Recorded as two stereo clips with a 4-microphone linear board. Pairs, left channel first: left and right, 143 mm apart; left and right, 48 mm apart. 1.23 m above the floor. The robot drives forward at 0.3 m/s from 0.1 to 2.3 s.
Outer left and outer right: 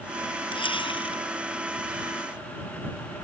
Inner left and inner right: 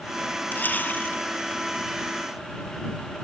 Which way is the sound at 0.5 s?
35° left (ahead or behind).